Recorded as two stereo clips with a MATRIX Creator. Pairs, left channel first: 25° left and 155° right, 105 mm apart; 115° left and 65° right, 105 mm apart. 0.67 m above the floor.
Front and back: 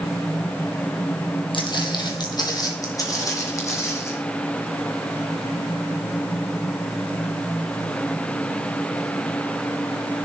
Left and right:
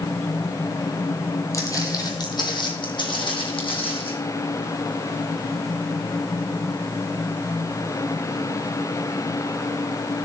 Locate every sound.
1.5 s footsteps: 55° left, 1.4 m; by 4.1 s 85° left, 2.5 m